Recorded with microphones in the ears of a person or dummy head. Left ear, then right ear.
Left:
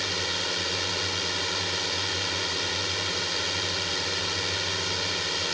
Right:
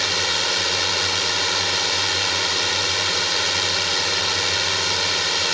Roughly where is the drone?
Right.